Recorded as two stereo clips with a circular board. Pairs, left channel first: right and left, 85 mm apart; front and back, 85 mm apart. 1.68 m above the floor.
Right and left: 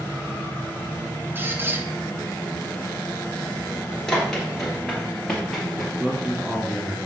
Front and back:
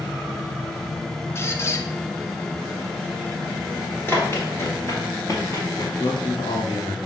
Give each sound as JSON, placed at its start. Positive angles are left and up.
{"t": 1.4, "sound": "a squeak", "azimuth_deg": 40, "distance_m": 0.6}
{"t": 4.1, "sound": "running footsteps", "azimuth_deg": -15, "distance_m": 1.7}
{"t": 6.0, "sound": "a man speaking", "azimuth_deg": 10, "distance_m": 1.5}